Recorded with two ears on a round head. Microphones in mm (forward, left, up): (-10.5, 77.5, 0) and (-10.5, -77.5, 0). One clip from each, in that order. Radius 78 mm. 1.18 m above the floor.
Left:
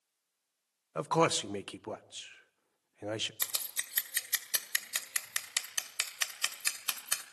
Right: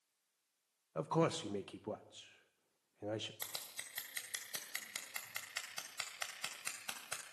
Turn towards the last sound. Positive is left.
turn(degrees=65)  # may be behind; listen again after turning